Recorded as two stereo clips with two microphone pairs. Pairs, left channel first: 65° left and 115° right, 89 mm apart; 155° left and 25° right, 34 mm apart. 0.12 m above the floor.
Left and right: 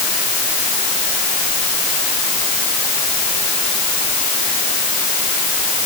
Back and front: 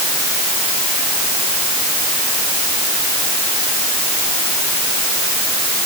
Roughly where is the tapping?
No tapping in this recording.